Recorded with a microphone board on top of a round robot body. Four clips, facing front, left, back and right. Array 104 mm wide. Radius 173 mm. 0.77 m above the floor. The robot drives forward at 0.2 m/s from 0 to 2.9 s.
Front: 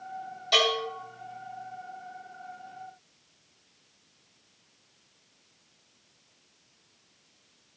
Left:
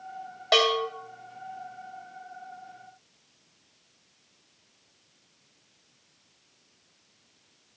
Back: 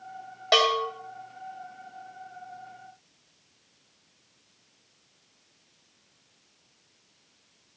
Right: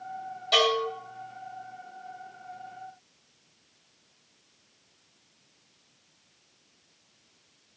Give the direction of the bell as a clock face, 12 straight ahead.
7 o'clock.